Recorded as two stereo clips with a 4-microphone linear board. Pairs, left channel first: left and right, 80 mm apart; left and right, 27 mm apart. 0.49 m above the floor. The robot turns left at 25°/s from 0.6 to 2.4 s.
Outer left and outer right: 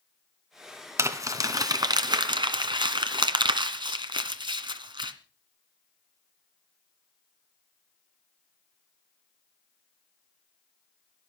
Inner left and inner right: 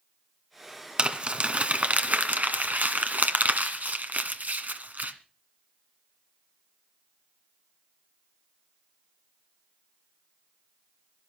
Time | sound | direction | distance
1.0 | crumpling | 35° right (ahead or behind) | 1.9 m